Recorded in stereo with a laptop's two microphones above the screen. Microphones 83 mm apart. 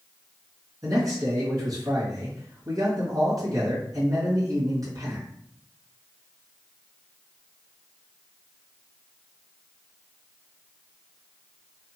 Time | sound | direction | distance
0.8 | a man speaking | 45° right (ahead or behind) | 1.5 m